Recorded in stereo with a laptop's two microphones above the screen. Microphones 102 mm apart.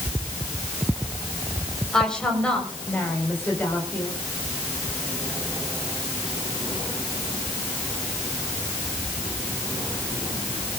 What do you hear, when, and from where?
1.9 s a woman speaking: 5° left (ahead or behind), 4.5 m; by 4.1 s 20° left (ahead or behind), 6 m